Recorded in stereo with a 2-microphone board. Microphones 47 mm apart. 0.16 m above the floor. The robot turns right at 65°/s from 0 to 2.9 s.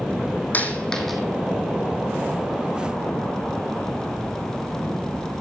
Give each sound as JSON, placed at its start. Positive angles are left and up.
{"t": 0.5, "sound": "a dropped coin", "side_deg": 40, "distance_m": 1.5}